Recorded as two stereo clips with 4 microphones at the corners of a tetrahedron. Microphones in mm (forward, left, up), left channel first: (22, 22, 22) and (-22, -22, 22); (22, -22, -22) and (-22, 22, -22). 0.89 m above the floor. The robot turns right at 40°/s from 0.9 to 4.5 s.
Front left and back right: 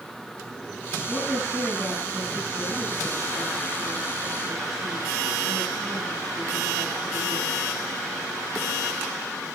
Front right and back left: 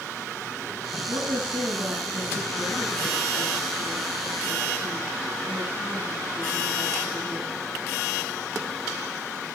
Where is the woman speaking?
130° left, 6.5 m; by 7.5 s 90° right, 6.5 m.